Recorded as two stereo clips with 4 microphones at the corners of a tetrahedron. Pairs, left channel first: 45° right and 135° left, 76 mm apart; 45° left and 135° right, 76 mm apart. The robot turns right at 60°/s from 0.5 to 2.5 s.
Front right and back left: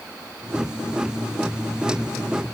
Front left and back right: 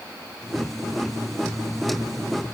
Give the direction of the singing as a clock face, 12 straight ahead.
No singing in this recording.